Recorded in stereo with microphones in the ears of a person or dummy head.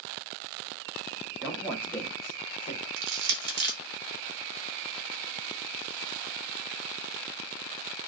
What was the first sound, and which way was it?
A man speaking, 15° right (ahead or behind).